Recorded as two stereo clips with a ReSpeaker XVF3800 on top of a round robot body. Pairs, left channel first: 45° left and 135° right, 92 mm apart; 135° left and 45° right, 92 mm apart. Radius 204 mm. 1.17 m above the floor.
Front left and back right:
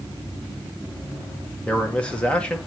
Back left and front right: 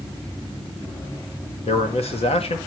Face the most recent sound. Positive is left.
turn(degrees=125)